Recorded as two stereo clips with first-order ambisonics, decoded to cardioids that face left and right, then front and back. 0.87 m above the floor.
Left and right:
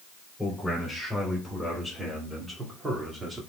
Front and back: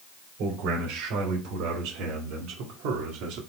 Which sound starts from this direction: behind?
A man speaking, at 0.4 s.